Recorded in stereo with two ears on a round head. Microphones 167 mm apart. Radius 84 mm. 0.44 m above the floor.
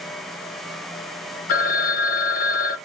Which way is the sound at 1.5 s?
45° left (ahead or behind).